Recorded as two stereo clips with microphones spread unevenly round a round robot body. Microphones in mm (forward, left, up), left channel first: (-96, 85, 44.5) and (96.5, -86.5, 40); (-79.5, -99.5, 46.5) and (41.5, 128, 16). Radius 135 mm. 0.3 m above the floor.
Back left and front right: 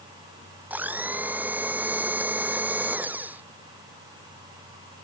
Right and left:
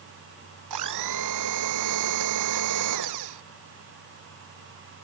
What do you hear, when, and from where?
0.7 s a blender: 40° left